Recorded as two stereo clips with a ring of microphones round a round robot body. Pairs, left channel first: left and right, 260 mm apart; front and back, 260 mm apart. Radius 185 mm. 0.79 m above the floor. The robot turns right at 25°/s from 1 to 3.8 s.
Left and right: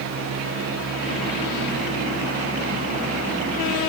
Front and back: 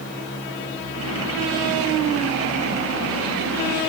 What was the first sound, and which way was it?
Only background noise.